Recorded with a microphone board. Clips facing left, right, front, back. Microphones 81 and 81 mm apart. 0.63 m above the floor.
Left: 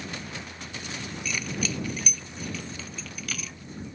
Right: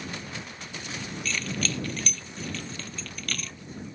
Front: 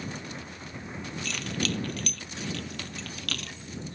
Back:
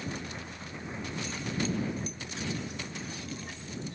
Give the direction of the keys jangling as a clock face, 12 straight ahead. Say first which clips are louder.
Even, front 1 dB; 12 o'clock.